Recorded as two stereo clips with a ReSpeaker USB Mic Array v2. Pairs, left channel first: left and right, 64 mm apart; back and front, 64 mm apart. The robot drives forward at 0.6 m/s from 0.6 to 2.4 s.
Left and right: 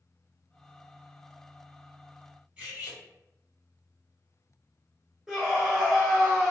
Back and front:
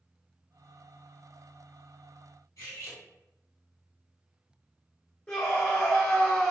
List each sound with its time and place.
2.6 s cutlery clinking: 165° right, 1.8 m
5.3 s a scream: 155° right, 0.8 m